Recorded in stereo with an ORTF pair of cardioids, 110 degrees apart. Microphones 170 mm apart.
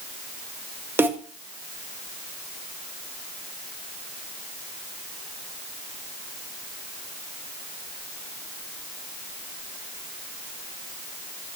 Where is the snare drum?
15° right, 1.8 m.